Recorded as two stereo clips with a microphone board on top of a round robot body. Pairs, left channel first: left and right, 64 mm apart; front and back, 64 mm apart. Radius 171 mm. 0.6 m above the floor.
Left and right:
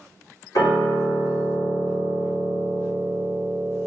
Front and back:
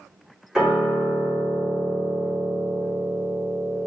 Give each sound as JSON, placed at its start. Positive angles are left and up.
{"t": 0.6, "sound": "a piano", "azimuth_deg": 100, "distance_m": 1.9}